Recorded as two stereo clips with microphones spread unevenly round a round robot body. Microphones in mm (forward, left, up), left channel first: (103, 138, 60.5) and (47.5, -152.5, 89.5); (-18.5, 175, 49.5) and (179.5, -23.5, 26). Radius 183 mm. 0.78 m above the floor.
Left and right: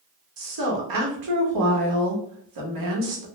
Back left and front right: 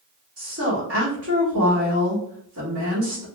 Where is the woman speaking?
95° right, 1.5 m.